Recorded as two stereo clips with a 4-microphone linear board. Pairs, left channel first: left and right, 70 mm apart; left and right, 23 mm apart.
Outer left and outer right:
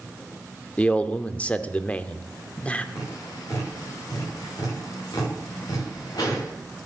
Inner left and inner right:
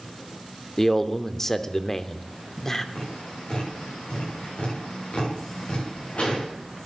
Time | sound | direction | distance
0.8 | a man speaking | 20° left (ahead or behind) | 0.7 m
3.0 | tapping | 75° left (ahead or behind) | 9 m